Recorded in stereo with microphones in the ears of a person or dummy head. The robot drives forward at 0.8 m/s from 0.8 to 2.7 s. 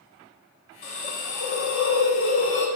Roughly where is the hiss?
Left.